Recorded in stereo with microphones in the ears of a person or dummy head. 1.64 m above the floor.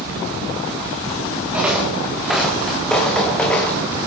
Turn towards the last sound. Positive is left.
turn(degrees=10)  # may be behind; listen again after turning